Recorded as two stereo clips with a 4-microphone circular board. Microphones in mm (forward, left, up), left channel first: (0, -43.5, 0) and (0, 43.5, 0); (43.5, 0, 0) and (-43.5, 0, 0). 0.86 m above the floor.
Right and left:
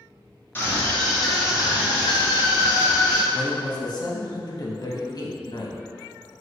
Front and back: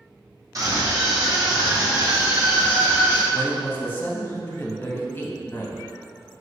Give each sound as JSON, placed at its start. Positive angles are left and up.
{"t": 0.6, "sound": "a scream", "azimuth_deg": -150, "distance_m": 1.4}
{"t": 3.3, "sound": "a man speaking", "azimuth_deg": -65, "distance_m": 0.9}